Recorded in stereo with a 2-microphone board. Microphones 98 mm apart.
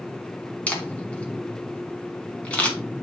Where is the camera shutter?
15° left (ahead or behind), 1.9 m.